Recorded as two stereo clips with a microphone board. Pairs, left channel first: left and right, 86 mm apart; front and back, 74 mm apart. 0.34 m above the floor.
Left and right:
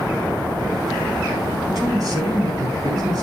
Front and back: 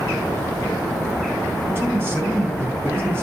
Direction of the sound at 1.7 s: 125° right.